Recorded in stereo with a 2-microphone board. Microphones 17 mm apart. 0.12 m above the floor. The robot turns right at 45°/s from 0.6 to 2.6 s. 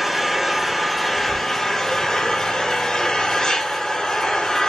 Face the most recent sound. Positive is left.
turn(degrees=90)